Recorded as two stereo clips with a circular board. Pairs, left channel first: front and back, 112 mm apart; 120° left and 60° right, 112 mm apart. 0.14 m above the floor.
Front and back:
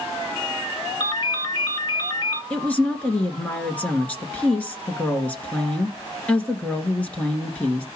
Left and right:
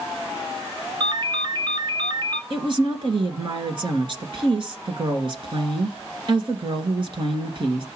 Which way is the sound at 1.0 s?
30° right.